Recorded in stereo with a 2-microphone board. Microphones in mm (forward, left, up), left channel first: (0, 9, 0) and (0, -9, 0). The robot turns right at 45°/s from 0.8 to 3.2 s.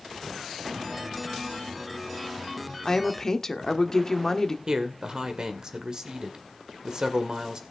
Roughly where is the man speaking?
Right.